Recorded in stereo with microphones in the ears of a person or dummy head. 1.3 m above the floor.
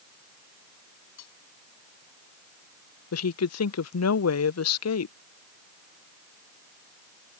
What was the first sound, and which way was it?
Cutlery clinking, 80° left.